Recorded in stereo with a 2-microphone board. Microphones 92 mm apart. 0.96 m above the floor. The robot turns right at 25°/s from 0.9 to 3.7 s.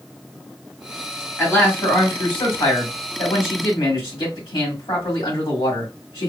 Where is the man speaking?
25° left, 1.9 m; by 6.3 s 85° left, 1.9 m.